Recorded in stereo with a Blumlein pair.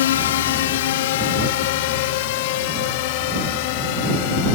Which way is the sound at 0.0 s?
60° left.